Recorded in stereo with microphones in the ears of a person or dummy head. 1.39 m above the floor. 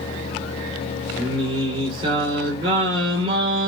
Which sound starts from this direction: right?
Singing, at 1.2 s.